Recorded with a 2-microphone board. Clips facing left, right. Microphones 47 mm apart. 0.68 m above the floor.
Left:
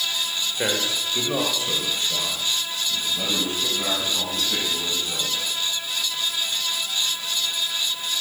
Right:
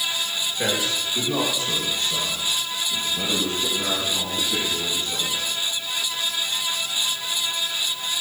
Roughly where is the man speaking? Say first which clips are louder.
Even; left.